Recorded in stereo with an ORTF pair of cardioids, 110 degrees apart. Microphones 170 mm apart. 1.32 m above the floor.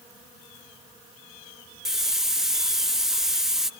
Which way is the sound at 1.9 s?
Straight ahead.